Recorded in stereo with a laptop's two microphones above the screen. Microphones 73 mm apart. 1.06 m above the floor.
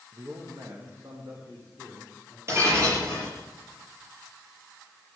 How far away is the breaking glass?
About 6 m.